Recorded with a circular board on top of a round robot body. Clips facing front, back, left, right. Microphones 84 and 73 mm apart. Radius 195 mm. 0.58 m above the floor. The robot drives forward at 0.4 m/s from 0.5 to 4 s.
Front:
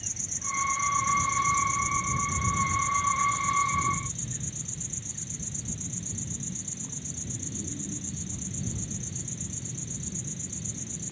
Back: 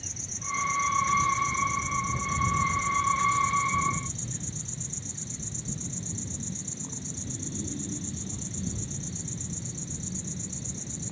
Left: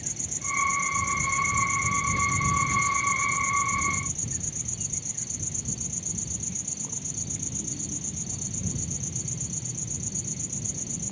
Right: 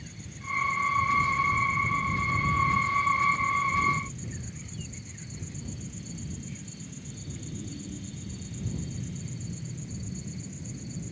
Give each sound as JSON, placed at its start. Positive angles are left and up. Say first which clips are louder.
{"t": 0.0, "sound": "an insect", "louder": "even, left 2 dB", "azimuth_deg": 95}